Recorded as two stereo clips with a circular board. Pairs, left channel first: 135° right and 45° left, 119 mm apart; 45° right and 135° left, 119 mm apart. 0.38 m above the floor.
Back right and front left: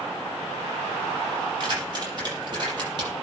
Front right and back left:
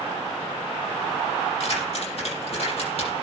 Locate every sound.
1.6 s keys jangling: 10° right, 7 m